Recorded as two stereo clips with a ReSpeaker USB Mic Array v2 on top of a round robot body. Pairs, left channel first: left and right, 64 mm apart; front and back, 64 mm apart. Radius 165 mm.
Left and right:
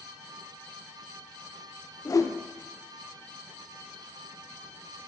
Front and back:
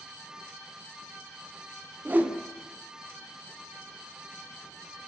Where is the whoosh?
115° left, 0.7 m.